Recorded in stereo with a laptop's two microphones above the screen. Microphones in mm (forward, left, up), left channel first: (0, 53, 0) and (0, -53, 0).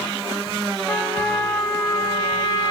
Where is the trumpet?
20° left (ahead or behind), 1.1 m.